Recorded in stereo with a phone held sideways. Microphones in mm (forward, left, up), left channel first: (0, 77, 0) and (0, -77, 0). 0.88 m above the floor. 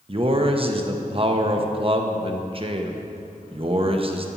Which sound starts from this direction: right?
A man speaking, at 0.1 s.